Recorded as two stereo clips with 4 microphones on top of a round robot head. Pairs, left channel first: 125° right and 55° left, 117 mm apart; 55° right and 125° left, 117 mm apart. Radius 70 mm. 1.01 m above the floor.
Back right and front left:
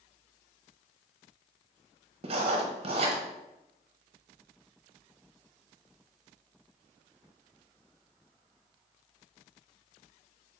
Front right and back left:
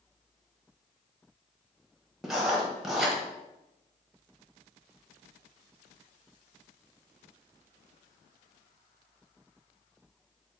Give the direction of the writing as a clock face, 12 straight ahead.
11 o'clock.